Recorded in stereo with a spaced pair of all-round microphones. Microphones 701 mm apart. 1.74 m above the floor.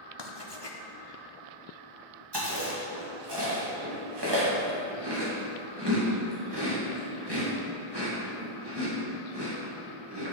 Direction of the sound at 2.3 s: 35° right (ahead or behind).